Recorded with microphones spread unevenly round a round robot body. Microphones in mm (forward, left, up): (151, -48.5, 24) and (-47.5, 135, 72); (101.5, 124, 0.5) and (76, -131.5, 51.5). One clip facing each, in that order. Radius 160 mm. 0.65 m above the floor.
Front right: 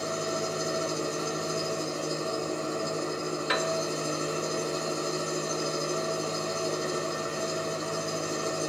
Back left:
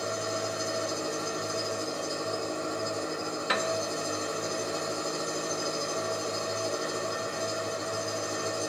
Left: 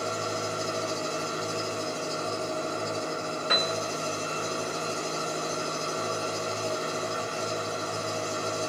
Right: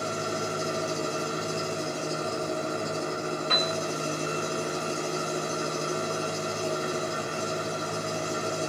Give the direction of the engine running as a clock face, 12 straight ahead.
4 o'clock.